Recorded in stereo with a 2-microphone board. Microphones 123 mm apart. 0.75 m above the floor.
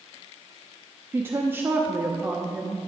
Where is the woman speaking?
15° right (ahead or behind), 0.7 m.